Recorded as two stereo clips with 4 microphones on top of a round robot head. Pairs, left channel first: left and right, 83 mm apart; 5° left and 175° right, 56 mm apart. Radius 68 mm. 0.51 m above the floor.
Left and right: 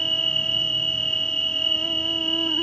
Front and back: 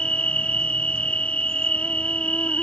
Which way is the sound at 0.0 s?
20° left.